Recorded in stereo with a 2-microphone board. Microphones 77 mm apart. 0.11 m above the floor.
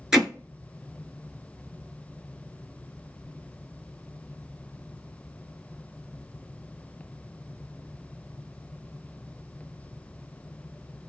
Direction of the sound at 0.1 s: 10° right (ahead or behind).